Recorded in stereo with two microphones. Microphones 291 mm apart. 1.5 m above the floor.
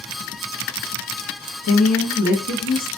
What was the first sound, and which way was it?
A woman speaking, 65° left (ahead or behind).